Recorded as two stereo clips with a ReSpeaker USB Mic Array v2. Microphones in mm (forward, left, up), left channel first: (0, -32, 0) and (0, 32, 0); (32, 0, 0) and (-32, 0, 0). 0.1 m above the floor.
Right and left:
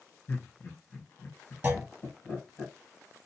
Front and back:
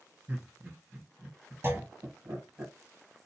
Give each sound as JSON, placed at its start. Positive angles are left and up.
{"t": 0.3, "sound": "laughter", "azimuth_deg": -130, "distance_m": 2.0}
{"t": 1.6, "sound": "a clunk", "azimuth_deg": 140, "distance_m": 0.8}